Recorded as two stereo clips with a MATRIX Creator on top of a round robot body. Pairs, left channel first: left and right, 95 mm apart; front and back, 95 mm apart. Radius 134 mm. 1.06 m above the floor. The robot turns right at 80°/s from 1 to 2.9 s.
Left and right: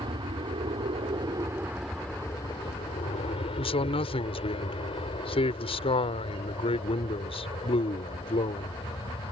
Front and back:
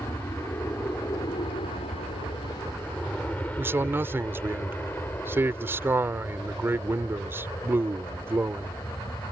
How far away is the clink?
No clink in this recording.